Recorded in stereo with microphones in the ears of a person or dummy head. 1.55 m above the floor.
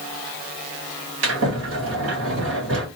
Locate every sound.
1.2 s a sliding door: 80° right, 3 m